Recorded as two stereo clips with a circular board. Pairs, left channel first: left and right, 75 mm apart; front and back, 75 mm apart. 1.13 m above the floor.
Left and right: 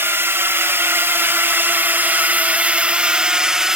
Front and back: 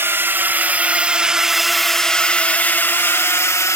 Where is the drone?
135° right; by 3.8 s 10° right.